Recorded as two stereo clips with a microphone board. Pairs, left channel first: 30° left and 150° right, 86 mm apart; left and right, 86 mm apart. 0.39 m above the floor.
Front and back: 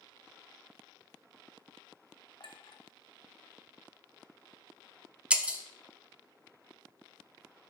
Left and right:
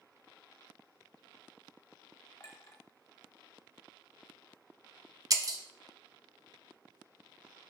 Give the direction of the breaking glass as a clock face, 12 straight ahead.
3 o'clock.